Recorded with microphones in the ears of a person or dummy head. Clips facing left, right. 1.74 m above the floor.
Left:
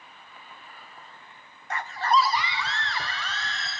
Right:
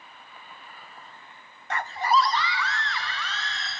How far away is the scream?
About 0.6 m.